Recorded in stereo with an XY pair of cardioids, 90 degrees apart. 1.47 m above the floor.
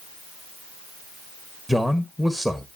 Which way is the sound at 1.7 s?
5° left.